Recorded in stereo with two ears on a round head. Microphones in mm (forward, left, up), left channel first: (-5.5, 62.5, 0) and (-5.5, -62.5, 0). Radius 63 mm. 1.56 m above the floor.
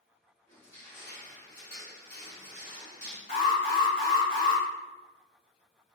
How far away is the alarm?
About 1.3 m.